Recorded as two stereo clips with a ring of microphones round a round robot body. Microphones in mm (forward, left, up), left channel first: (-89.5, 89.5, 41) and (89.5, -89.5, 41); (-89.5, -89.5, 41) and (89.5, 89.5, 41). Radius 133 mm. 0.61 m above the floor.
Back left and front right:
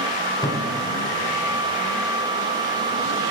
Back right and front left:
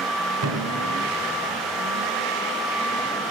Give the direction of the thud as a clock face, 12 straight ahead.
10 o'clock.